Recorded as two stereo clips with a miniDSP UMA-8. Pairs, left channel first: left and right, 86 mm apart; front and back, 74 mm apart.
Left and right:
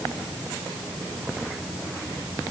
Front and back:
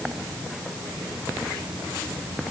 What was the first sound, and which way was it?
Only background noise.